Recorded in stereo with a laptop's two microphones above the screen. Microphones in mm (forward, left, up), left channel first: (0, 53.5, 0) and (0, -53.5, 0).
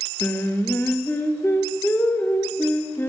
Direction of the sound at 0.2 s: 20° left (ahead or behind).